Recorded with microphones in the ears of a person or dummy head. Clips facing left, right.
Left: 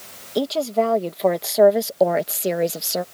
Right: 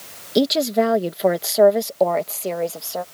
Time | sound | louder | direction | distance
0.3 | a woman speaking | right 3 dB | 25° right (ahead or behind) | ?